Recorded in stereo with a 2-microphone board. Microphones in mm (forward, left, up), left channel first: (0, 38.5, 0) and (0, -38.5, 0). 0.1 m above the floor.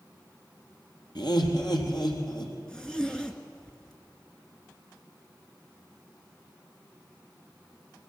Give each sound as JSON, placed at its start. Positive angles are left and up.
{"t": 1.1, "sound": "laughter", "side_deg": 65, "distance_m": 3.0}
{"t": 2.7, "sound": "a zipper", "side_deg": 10, "distance_m": 1.6}